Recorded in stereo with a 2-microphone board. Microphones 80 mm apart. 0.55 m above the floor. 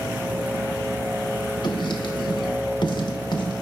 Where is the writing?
65° left (ahead or behind), 0.6 m.